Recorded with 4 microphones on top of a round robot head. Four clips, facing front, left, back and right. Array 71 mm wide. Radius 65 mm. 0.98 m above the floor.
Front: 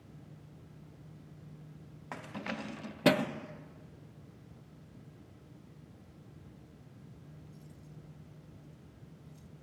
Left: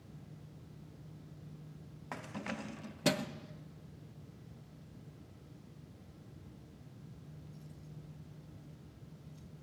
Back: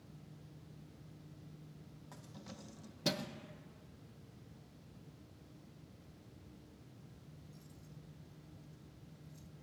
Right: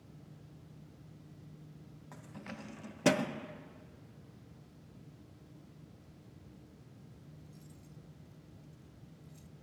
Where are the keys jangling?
35° left; by 9.5 s 85° right.